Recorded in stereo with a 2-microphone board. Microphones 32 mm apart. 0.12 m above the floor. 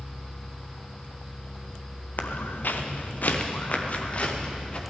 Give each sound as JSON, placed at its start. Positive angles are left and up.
{"t": 2.2, "sound": "footsteps", "side_deg": 90, "distance_m": 1.5}